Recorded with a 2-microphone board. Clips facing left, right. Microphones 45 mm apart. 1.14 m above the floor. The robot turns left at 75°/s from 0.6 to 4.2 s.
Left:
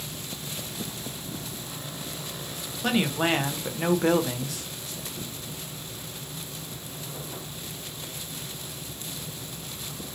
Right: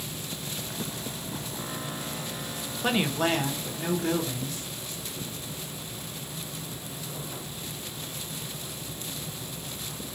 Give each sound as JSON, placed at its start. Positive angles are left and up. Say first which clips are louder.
{"t": 2.8, "sound": "a woman speaking", "louder": "left 1 dB", "azimuth_deg": -170, "distance_m": 0.8}